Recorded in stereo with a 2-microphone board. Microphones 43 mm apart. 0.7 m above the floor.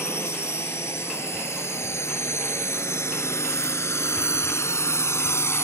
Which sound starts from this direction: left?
A drone, at 0.0 s.